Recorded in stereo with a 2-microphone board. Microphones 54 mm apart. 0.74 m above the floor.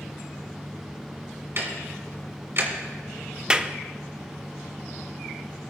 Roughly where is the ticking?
Right.